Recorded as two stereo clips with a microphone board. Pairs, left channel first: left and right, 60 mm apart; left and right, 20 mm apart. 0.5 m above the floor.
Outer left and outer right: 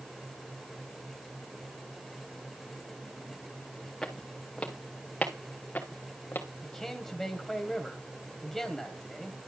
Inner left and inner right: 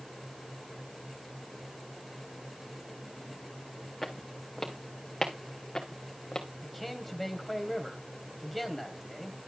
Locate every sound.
4.0 s footsteps: 10° left (ahead or behind), 3 m; by 6.5 s 35° left (ahead or behind), 3 m
6.6 s a man speaking: 5° left (ahead or behind), 2.5 m